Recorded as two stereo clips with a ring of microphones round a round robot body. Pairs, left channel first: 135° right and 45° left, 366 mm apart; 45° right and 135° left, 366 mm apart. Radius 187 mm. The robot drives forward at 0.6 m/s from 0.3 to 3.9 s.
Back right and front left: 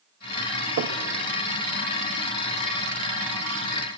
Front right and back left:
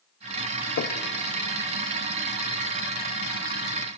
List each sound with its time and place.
0.8 s knocking: straight ahead, 0.8 m; by 1.0 s 5° left, 0.7 m